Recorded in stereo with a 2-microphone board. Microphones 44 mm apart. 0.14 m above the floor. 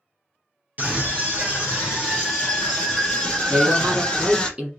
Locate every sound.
0.8 s a scream: 35° right (ahead or behind), 3 m; by 4.5 s 5° left (ahead or behind), 3 m
3.5 s a man speaking: 25° right (ahead or behind), 1.4 m